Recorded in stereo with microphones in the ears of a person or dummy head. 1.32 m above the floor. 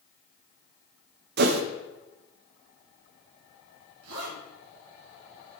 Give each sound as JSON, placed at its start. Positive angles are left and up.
{"t": 1.4, "sound": "a whoosh", "side_deg": -60, "distance_m": 0.9}
{"t": 4.0, "sound": "a zipper", "side_deg": -85, "distance_m": 4.0}